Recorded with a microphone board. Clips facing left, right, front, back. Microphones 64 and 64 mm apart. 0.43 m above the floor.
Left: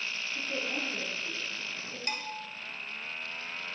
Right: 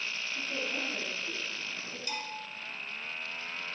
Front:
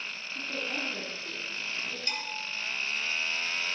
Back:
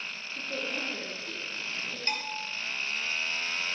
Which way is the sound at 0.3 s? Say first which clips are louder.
Left 1 dB, even; 25° left.